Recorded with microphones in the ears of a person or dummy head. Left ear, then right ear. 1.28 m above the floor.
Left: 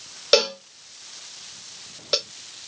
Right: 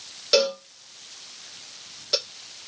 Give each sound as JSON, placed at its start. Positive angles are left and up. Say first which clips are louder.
{"t": 0.3, "sound": "a cowbell", "louder": "left 2 dB", "side_deg": 20, "distance_m": 0.6}